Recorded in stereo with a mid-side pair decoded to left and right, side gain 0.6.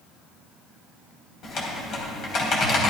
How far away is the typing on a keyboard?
About 4 m.